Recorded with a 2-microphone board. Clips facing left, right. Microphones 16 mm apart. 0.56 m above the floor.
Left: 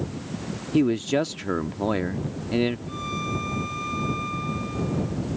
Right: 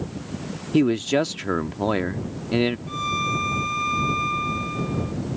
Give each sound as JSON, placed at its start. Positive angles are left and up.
{"t": 0.7, "sound": "a man speaking", "side_deg": -25}
{"t": 2.9, "sound": "a violin", "side_deg": -30}